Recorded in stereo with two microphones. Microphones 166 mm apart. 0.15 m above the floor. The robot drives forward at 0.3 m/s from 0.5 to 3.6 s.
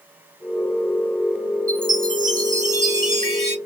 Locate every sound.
1.7 s a chime: 60° right (ahead or behind), 1.2 m; by 3.6 s 40° right (ahead or behind), 1.6 m